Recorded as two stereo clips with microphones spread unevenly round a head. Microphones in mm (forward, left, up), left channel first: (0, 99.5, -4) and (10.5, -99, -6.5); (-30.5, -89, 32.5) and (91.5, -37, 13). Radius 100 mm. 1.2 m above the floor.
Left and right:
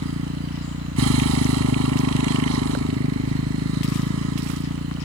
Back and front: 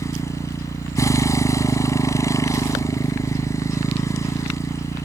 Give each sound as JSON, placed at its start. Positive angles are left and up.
{"t": 0.0, "sound": "a motorcycle", "azimuth_deg": -95}